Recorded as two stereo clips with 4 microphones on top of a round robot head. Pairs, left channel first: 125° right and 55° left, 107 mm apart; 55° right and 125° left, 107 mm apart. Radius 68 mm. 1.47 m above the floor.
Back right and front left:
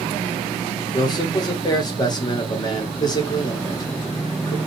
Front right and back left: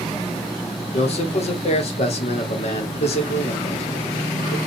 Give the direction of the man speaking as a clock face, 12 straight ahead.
3 o'clock.